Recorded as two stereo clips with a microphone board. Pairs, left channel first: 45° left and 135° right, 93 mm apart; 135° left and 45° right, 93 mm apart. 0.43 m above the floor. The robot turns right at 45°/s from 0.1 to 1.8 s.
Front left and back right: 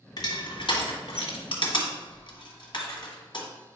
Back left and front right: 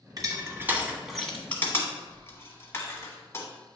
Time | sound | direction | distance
0.2 | crushing | straight ahead | 1.4 m